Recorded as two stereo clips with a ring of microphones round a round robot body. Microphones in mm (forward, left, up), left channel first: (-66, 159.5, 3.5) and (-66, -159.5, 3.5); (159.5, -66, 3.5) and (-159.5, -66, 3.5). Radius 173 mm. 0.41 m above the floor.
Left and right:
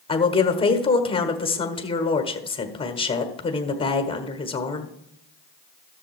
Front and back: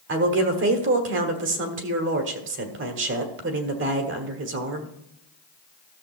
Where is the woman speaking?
155° left, 1.4 m.